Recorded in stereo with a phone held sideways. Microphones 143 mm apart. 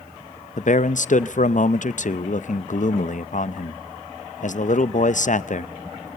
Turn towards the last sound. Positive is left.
turn(degrees=60)  # may be behind; listen again after turning